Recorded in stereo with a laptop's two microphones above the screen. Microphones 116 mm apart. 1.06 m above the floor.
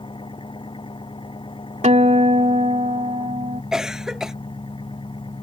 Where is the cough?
5° right (ahead or behind).